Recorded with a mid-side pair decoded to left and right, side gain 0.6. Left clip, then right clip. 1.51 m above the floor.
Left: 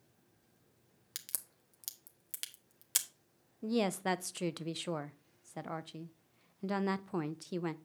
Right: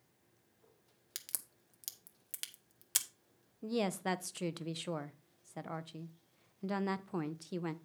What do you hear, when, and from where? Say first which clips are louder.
1.1 s a crack: left 1 dB; 5° left, 1.0 m
3.6 s a woman speaking: left 2 dB; 10° left, 0.5 m